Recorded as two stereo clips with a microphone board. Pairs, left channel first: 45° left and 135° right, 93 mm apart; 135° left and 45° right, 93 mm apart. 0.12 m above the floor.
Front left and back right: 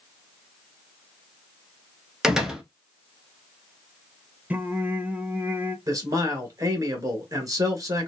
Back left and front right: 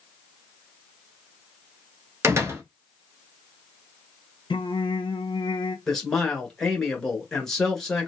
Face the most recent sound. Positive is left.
turn(degrees=-145)